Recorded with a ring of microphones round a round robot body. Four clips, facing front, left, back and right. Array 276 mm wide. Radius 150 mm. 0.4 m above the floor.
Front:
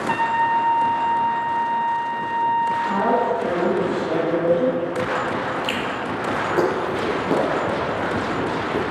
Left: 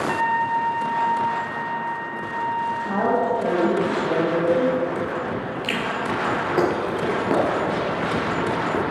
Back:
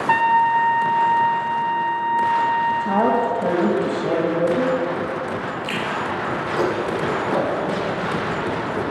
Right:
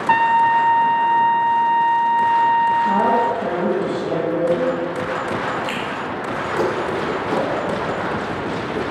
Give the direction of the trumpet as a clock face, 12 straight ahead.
4 o'clock.